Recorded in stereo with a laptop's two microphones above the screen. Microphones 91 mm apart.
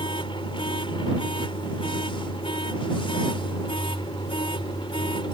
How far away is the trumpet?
I don't hear a trumpet.